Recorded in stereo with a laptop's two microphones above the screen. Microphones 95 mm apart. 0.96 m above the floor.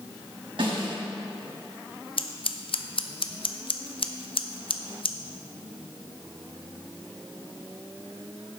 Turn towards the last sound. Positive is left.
turn(degrees=70)  # may be behind; listen again after turning